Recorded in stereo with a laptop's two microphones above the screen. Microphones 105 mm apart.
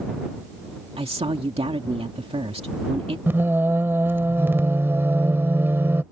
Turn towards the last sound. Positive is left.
turn(degrees=-25)  # may be behind; listen again after turning